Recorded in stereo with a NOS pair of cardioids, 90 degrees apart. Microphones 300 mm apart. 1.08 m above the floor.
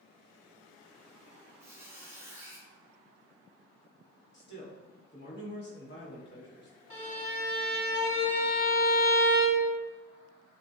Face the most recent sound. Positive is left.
turn(degrees=10)